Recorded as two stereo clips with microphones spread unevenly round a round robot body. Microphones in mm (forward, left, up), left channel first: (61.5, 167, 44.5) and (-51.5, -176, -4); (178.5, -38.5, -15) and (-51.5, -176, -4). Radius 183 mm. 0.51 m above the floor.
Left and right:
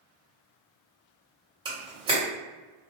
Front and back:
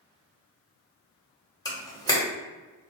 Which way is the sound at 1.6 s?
40° right.